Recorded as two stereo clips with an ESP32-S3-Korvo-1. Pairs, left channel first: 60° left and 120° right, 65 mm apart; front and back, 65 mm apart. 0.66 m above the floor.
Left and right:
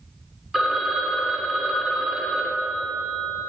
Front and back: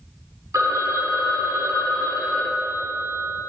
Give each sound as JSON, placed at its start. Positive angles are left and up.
{"t": 0.5, "sound": "a phone ringing", "azimuth_deg": 155, "distance_m": 1.4}